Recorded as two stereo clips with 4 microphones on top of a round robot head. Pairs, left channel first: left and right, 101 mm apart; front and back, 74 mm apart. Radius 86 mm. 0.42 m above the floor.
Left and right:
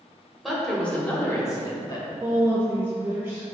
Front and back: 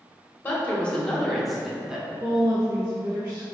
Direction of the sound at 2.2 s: 135° right.